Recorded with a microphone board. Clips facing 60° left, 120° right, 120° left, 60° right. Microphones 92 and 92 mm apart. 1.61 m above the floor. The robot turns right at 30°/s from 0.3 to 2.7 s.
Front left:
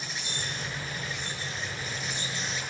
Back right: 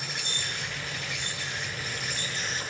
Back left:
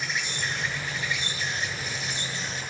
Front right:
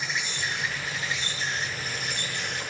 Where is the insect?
155° right, 9 m; by 2.7 s 80° right, 9 m.